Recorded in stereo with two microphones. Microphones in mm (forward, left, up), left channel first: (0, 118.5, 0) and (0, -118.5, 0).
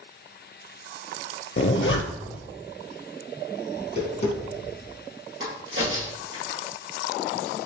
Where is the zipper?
60° left (ahead or behind), 0.6 m.